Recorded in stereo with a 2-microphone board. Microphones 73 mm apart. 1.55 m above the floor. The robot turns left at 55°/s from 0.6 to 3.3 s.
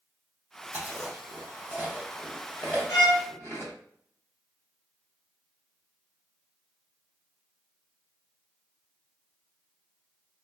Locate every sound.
0.7 s chewing: 40° right (ahead or behind), 1.4 m; by 3.7 s 35° left (ahead or behind), 1.4 m
2.9 s a violin: 50° left (ahead or behind), 2.0 m; by 3.2 s 60° left (ahead or behind), 2.0 m